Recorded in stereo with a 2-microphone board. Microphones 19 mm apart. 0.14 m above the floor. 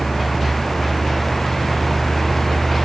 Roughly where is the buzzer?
I don't hear a buzzer.